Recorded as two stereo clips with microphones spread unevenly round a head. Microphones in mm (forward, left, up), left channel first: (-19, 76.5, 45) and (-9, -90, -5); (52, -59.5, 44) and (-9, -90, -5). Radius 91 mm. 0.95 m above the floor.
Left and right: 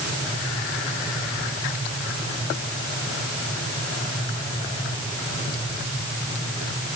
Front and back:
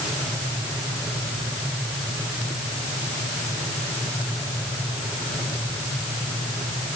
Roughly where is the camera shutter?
No camera shutter in this recording.